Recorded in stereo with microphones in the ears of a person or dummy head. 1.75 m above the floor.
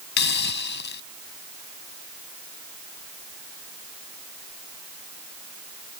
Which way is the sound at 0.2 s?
65° left (ahead or behind).